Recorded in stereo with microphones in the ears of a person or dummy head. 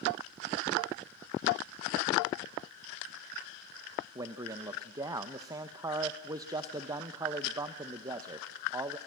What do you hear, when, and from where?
4.2 s a man speaking: 15° right (ahead or behind), 0.9 m